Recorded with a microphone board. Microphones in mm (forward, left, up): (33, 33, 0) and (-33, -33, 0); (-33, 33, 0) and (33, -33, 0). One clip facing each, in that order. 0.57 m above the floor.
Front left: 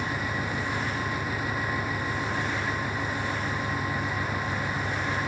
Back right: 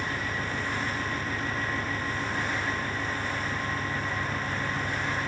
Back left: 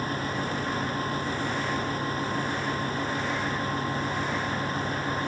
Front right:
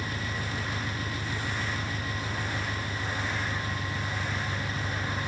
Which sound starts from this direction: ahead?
An engine running, at 0.0 s.